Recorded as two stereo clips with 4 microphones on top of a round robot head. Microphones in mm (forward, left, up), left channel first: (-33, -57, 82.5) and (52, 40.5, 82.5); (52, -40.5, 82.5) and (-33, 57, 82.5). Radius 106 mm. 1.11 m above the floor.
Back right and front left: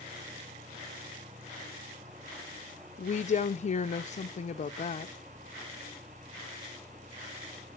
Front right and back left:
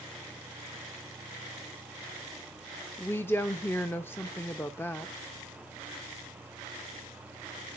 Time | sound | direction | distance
3.0 | a woman speaking | 120° right | 0.7 m